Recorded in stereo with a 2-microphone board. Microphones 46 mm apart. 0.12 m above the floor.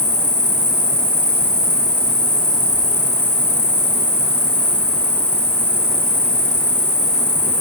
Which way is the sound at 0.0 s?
15° left (ahead or behind).